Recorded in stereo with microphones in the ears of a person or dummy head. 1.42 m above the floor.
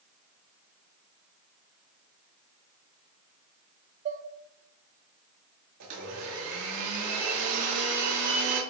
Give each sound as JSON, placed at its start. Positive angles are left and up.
{"t": 4.0, "sound": "dishes clattering", "side_deg": -35, "distance_m": 0.7}
{"t": 5.8, "sound": "a blender", "side_deg": -85, "distance_m": 2.5}